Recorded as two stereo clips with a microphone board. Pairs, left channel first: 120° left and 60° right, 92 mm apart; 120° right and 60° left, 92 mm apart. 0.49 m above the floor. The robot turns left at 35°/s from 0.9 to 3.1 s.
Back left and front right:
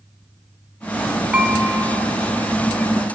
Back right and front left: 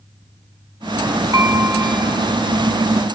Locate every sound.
1.3 s dishes clattering: 15° left, 2.0 m; by 1.9 s 5° right, 2.0 m